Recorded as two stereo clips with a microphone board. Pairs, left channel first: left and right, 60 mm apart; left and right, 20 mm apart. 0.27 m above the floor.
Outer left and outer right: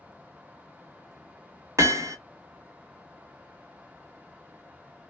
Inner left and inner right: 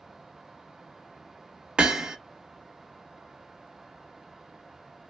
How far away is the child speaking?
I don't hear a child speaking.